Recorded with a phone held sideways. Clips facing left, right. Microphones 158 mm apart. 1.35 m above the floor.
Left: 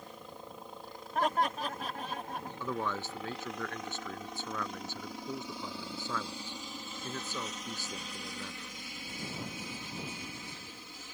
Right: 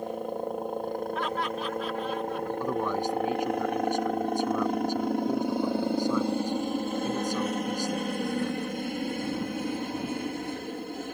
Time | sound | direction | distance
0.0 | a helicopter | 60° right (ahead or behind) | ?
1.1 | laughter | 45° left (ahead or behind) | ?
2.6 | a man speaking | 15° right (ahead or behind) | ?